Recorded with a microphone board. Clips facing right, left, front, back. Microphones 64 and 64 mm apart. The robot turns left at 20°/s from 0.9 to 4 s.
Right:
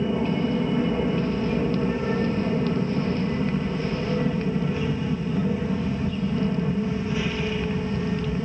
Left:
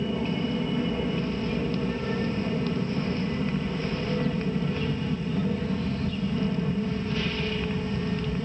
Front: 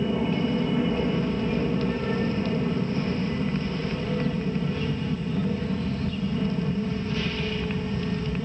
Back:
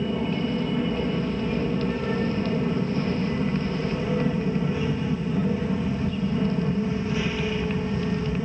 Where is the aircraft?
75° right; by 8.5 s 140° right.